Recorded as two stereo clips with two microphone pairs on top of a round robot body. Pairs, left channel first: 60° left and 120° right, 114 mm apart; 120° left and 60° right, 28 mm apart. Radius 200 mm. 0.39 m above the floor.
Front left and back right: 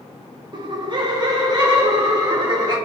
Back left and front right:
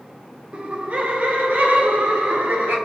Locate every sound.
0.5 s laughter: 100° right, 0.8 m; by 2.8 s 60° right, 1.9 m